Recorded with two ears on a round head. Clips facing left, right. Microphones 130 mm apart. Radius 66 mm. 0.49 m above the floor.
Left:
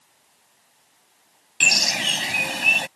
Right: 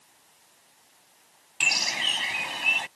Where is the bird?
60° left (ahead or behind).